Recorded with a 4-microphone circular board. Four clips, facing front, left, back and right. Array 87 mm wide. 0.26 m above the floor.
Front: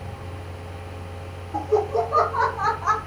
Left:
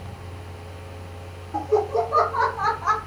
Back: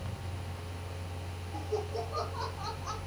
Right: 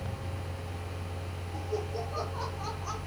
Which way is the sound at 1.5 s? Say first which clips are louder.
Left 14 dB, front 14 dB; 45° left.